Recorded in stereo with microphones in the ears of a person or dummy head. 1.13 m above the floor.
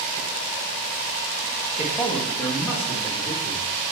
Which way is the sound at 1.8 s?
15° right (ahead or behind).